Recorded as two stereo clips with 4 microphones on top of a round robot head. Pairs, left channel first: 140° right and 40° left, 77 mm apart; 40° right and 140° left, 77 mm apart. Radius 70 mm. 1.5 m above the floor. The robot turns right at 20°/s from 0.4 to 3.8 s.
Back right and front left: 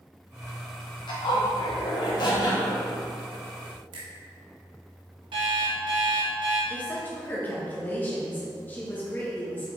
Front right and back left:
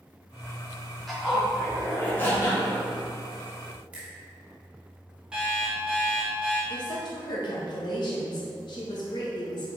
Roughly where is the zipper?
Behind right.